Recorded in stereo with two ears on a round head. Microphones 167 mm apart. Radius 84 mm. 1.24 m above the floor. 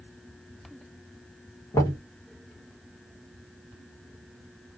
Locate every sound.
1.7 s knocking: 20° left (ahead or behind), 1.0 m